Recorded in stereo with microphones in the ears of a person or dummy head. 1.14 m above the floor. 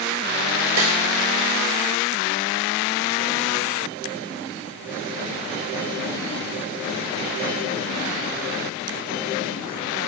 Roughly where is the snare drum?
Right.